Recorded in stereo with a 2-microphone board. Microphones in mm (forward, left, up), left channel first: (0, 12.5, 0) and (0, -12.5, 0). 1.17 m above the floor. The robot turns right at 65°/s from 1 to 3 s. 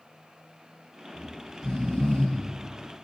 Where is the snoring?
30° left (ahead or behind), 3 m.